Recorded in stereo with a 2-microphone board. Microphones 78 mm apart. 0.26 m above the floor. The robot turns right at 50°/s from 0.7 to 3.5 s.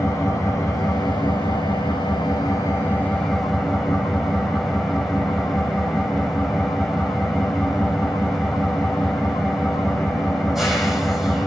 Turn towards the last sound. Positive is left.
turn(degrees=-175)